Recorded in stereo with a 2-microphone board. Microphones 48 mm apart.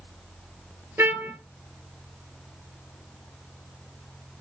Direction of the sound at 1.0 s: 55° right (ahead or behind).